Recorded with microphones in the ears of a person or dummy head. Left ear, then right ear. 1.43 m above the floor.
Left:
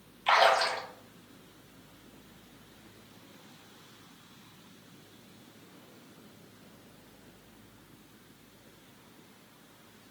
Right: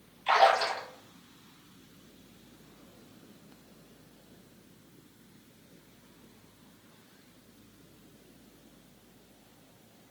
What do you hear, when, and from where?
0.3 s a splash: 10° left (ahead or behind), 0.8 m